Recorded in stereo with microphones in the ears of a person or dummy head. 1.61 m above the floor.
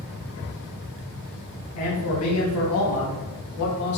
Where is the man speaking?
75° left (ahead or behind), 1.9 m; by 4.0 s 60° left (ahead or behind), 1.7 m.